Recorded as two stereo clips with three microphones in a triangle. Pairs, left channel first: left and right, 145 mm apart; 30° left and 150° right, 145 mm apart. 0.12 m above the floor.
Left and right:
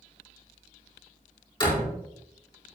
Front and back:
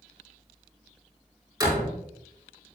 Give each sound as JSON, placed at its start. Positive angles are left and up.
{"t": 1.6, "sound": "a door slam", "azimuth_deg": 145, "distance_m": 4.5}